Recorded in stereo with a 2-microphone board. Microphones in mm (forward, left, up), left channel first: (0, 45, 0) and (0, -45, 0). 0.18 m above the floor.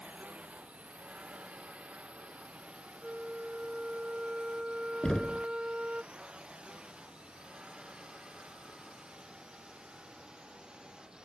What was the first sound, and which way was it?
A drone, 15° right (ahead or behind).